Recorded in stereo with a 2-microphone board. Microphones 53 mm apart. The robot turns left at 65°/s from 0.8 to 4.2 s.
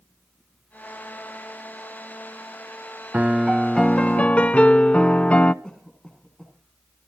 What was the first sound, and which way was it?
A piano, 145° right.